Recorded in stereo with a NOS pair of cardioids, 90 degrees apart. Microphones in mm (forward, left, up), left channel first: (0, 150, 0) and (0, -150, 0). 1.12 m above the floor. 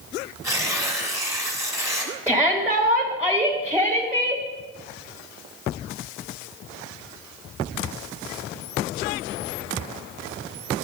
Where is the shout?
5° right, 1.7 m.